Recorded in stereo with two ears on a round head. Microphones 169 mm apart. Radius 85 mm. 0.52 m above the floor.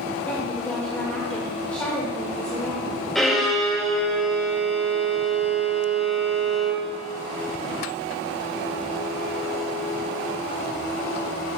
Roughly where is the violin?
Centre.